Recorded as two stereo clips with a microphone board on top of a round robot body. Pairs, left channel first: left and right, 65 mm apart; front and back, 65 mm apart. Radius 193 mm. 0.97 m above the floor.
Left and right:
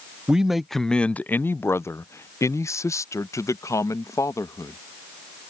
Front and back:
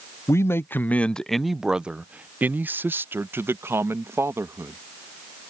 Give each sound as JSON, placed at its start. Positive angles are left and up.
{"t": 0.3, "sound": "a man speaking", "azimuth_deg": -15}